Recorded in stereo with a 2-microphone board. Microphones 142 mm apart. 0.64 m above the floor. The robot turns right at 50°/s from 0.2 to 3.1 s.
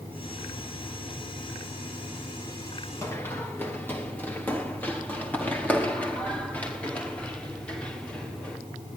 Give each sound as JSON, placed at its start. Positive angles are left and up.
{"t": 3.0, "sound": "running footsteps", "side_deg": 20, "distance_m": 3.0}